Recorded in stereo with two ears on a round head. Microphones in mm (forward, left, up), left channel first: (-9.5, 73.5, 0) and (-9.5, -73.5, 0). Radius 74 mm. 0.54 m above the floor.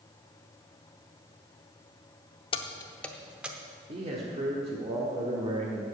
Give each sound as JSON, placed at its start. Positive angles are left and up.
{"t": 2.5, "sound": "keys jangling", "side_deg": 35, "distance_m": 0.6}
{"t": 3.9, "sound": "a man speaking", "side_deg": -40, "distance_m": 1.2}